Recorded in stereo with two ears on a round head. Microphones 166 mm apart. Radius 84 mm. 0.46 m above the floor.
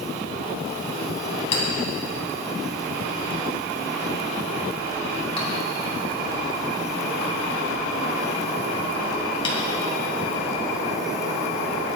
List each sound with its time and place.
1.5 s a clink: 30° left (ahead or behind), 3 m